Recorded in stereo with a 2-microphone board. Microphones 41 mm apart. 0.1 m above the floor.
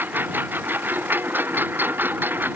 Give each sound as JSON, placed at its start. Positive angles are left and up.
{"t": 0.0, "sound": "a lawn mower", "side_deg": -55}